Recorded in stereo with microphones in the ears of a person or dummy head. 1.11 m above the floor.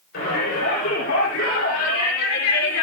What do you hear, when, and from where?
0.1 s a shout: 55° left (ahead or behind), 5.5 m; by 2.8 s 65° left (ahead or behind), 3 m